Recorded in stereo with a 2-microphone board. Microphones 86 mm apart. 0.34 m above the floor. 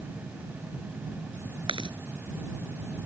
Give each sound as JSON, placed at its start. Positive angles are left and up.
{"t": 1.7, "sound": "chewing", "side_deg": -80}